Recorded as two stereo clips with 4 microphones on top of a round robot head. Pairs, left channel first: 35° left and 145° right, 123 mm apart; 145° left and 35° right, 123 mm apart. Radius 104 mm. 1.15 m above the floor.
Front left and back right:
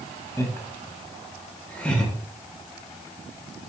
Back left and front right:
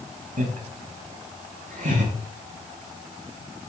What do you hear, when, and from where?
0.4 s laughter: 30° right, 3.5 m; by 2.1 s 45° right, 6 m